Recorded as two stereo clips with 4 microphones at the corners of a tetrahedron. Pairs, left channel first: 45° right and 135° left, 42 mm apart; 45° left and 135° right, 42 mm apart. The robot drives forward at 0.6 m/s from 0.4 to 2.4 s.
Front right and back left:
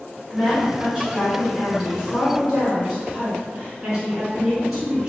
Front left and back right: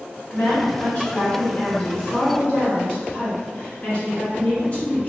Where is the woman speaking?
20° left, 2.0 m; by 5.1 s 70° left, 1.4 m.